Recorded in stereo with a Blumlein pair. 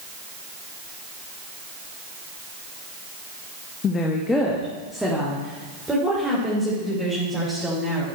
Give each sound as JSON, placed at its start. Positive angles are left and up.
{"t": 3.8, "sound": "a woman speaking", "azimuth_deg": 30, "distance_m": 1.3}